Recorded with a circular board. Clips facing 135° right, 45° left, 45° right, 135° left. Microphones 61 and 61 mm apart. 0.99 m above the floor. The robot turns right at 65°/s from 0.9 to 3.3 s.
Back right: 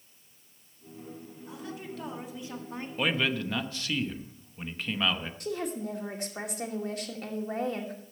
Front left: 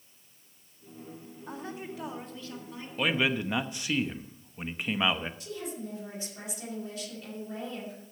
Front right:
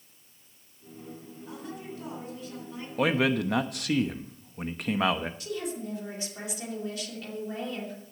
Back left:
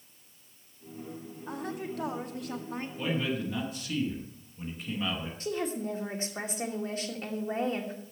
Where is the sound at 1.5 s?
90° left, 1.9 m; by 2.9 s straight behind, 1.9 m.